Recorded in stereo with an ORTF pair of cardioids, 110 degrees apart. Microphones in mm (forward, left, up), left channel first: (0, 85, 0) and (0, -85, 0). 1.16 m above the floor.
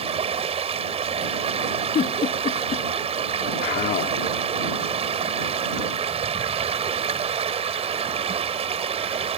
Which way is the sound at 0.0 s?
40° right.